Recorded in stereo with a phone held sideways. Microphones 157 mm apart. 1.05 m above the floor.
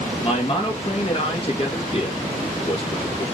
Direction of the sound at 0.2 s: 35° left (ahead or behind).